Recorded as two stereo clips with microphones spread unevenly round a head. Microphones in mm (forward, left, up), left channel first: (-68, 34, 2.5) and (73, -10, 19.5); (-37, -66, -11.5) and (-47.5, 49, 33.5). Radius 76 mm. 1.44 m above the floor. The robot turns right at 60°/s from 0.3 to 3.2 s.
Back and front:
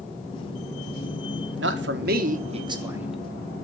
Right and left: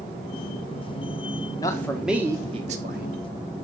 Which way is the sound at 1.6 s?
20° right.